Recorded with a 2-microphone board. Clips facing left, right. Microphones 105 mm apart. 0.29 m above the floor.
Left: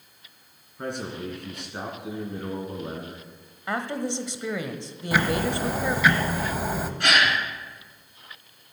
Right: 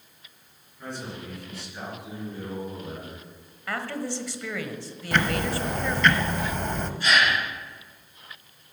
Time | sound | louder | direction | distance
0.8 | a man speaking | left 5 dB | 65° left (ahead or behind) | 3 m
3.7 | a woman speaking | left 3 dB | 20° left (ahead or behind) | 1.1 m
5.1 | ticking | left 1 dB | 5° left (ahead or behind) | 0.8 m
7.0 | a gasp | even | 70° left (ahead or behind) | 4.5 m